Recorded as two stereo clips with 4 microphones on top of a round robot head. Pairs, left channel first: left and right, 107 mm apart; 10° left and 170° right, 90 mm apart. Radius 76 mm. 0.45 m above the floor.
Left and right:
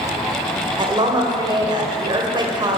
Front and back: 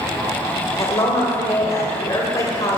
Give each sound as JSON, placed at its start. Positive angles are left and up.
{"t": 0.8, "sound": "a woman speaking", "azimuth_deg": -50, "distance_m": 1.6}